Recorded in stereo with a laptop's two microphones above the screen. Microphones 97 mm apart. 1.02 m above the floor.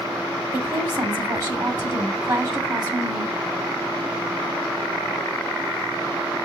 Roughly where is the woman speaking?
Right.